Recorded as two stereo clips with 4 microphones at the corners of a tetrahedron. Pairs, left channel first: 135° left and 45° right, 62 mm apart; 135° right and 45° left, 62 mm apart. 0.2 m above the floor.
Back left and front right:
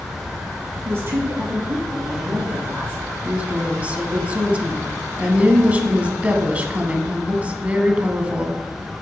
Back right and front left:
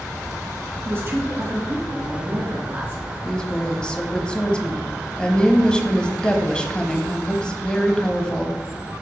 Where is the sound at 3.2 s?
75° right, 1.1 m.